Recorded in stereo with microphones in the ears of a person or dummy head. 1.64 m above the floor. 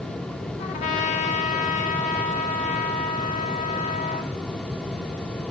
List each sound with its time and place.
0.6 s a trumpet: 40° left (ahead or behind), 1.2 m